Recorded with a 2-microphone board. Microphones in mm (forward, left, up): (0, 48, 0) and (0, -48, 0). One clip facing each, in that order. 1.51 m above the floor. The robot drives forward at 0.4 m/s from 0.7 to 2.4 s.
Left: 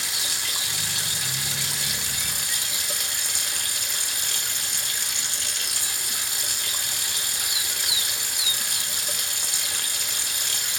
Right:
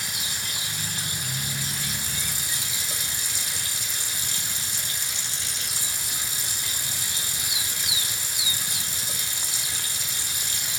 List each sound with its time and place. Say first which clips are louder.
0.0 s running water: left 1 dB; 70° left (ahead or behind), 1.1 m; by 10.8 s 60° left (ahead or behind), 1.2 m